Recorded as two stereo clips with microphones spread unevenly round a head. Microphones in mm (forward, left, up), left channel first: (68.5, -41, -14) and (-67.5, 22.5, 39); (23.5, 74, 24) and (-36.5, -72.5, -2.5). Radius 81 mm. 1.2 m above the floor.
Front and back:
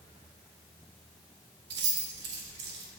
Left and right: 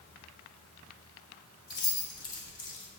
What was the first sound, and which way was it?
Keys jangling, 135° left.